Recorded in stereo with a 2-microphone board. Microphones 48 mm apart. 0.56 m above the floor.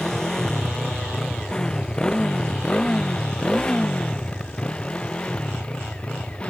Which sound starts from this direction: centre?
A motorcycle, at 0.0 s.